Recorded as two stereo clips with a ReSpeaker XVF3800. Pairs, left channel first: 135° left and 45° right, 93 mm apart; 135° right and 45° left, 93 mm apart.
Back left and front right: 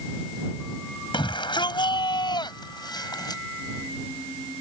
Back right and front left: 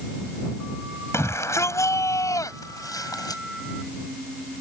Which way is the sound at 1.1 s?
165° left.